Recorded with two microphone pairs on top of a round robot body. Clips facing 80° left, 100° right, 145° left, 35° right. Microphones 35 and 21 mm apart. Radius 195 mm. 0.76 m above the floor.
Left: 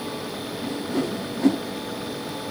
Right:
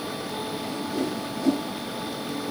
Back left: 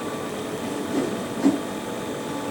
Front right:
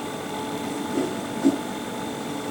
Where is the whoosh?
90° left, 6 m.